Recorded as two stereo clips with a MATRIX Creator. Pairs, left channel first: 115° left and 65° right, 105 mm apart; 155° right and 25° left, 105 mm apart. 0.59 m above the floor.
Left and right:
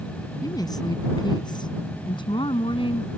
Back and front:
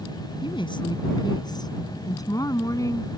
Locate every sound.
0.4 s a woman speaking: 165° left; by 3.1 s 145° left